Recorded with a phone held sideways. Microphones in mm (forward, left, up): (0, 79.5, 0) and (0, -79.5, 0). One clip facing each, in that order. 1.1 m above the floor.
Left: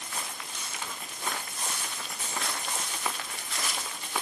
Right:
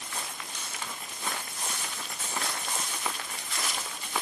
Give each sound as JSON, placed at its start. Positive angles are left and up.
{"t": 1.8, "sound": "a dropped coin", "side_deg": 15, "distance_m": 0.8}